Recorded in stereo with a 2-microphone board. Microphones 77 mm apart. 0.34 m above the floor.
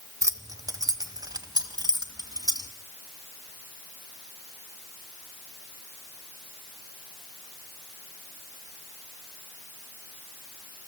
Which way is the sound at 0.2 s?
45° right (ahead or behind).